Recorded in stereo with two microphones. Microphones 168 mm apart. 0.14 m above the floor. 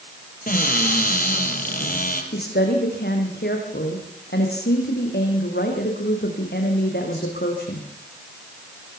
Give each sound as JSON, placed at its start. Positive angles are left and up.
{"t": 0.5, "sound": "a cupboard door", "side_deg": 55, "distance_m": 4.5}
{"t": 2.3, "sound": "a woman speaking", "side_deg": 75, "distance_m": 7.5}